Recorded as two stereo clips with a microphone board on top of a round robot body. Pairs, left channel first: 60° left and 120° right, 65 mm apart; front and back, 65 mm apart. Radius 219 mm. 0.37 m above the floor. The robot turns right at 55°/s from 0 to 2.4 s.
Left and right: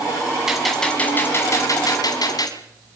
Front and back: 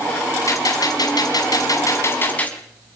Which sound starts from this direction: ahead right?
A gunshot, at 0.5 s.